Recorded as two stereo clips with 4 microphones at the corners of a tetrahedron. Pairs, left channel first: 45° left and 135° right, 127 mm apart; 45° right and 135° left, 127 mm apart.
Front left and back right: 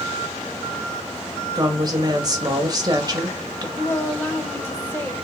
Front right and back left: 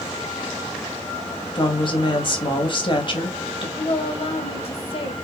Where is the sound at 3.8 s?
25° right, 1.5 m.